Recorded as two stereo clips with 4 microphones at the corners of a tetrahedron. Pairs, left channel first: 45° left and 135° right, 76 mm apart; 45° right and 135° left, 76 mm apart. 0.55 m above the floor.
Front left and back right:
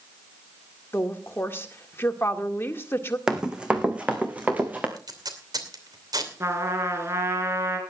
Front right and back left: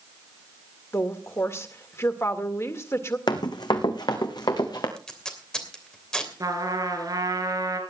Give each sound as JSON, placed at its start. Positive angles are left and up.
{"t": 0.9, "sound": "a woman speaking", "azimuth_deg": -5, "distance_m": 1.9}
{"t": 3.3, "sound": "running footsteps", "azimuth_deg": -55, "distance_m": 1.9}
{"t": 5.0, "sound": "tape being pulled", "azimuth_deg": -125, "distance_m": 2.5}
{"t": 6.4, "sound": "a trumpet", "azimuth_deg": 170, "distance_m": 3.0}